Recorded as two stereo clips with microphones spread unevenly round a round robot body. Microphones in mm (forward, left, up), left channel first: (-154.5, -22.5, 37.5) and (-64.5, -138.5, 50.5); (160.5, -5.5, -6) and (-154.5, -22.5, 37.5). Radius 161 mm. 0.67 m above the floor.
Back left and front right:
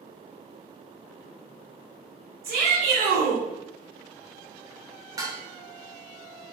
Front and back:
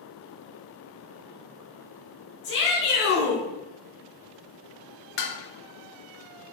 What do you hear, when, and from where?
2.4 s a shout: 50° right, 2.0 m
5.2 s dishes clattering: 10° left, 0.5 m